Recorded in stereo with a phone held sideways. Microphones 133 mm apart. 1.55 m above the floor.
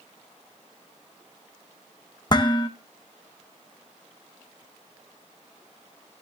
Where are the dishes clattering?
35° left (ahead or behind), 0.9 m.